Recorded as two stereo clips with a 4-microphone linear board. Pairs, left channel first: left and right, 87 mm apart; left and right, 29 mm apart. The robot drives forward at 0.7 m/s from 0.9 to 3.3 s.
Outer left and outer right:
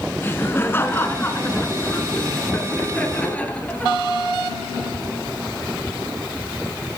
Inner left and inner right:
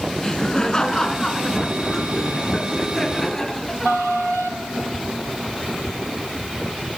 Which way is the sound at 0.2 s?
25° left (ahead or behind).